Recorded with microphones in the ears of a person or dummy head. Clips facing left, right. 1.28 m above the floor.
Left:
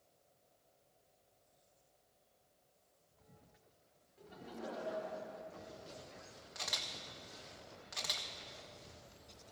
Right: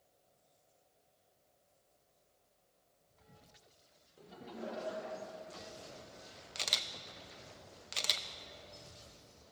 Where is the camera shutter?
40° right (ahead or behind), 0.5 m.